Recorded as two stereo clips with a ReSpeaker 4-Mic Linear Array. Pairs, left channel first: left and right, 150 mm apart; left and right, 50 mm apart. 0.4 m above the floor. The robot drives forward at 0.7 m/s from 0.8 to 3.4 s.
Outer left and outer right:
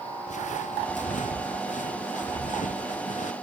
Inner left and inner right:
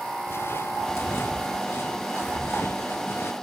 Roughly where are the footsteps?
Left.